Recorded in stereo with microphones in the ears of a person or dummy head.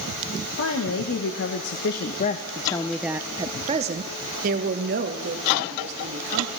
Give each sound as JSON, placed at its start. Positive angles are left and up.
{"t": 0.6, "sound": "a woman speaking", "side_deg": 80, "distance_m": 1.3}